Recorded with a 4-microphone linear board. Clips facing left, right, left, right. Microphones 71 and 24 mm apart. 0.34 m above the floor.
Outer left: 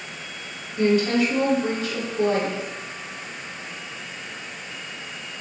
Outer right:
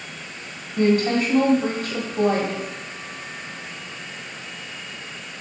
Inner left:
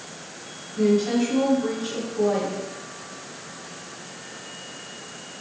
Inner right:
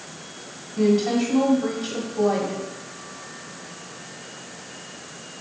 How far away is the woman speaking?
About 1.7 m.